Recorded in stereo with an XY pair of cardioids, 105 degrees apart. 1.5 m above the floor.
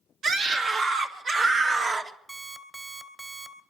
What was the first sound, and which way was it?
A scream, 65° right.